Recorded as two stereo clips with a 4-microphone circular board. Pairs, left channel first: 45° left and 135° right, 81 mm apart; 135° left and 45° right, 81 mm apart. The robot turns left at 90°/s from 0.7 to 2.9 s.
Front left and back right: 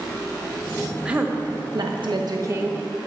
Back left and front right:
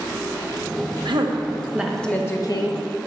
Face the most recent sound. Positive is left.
turn(degrees=135)